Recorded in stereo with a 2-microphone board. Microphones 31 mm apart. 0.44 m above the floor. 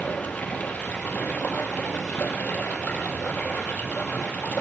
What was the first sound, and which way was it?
Running water, 60° left (ahead or behind).